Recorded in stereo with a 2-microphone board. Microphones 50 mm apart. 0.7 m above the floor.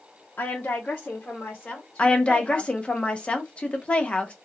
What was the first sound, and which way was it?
A woman speaking, 35° left (ahead or behind).